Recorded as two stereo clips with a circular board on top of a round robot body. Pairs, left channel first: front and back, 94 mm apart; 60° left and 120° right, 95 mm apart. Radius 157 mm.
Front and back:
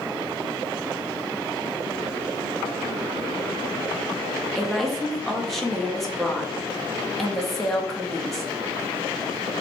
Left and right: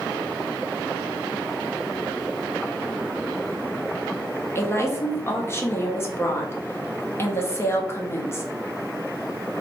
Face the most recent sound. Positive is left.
turn(degrees=85)